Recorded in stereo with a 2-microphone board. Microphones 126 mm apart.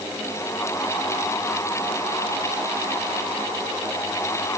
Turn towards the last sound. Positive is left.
No sound to turn to.